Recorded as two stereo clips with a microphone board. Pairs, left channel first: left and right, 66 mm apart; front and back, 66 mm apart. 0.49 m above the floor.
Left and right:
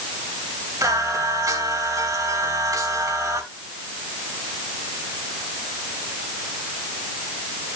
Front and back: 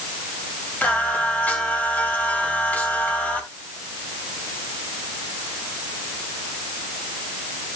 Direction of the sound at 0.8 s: 65° right.